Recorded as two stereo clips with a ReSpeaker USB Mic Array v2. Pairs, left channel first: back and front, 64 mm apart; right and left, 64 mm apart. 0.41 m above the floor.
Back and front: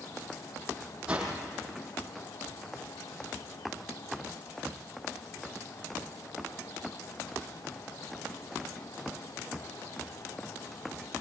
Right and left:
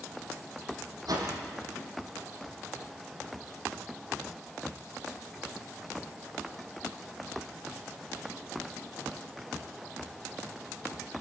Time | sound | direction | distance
1.1 | a whoosh | 75° left | 5 m